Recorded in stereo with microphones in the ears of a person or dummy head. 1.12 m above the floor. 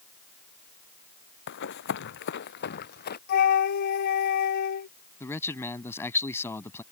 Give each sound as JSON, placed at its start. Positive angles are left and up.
{"t": 1.5, "sound": "running footsteps", "side_deg": 60}
{"t": 3.3, "sound": "a flute", "side_deg": 55}
{"t": 5.2, "sound": "a man speaking", "side_deg": 15}